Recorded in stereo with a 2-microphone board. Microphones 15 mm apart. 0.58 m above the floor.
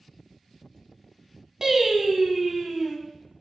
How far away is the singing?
About 0.8 m.